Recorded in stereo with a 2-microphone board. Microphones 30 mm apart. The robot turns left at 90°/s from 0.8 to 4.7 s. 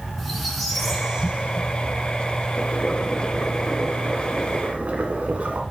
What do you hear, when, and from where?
0.2 s a squeak: 5° left, 1.7 m; by 2.4 s 135° right, 1.7 m
2.5 s boiling: 90° left, 1.3 m; by 5.6 s 105° right, 1.3 m